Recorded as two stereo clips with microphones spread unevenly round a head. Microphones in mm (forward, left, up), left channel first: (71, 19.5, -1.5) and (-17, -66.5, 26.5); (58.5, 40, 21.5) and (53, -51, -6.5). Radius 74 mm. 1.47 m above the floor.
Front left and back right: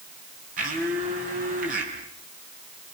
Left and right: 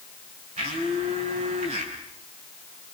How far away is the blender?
About 6.5 m.